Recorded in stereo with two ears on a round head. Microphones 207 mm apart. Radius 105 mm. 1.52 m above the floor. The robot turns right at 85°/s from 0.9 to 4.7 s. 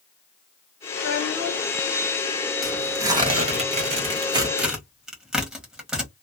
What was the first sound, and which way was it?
A child speaking, 95° left.